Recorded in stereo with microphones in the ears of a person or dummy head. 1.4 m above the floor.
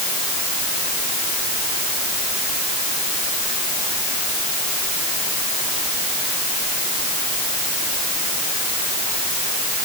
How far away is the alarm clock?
No alarm clock in this recording.